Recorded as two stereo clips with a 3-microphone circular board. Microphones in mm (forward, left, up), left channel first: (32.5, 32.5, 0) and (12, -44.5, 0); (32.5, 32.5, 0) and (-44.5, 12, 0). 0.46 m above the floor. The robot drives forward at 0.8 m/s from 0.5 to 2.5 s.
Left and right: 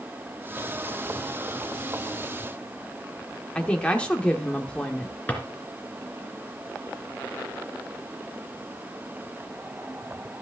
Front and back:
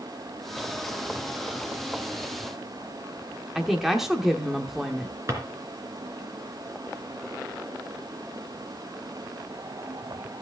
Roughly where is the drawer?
Behind left.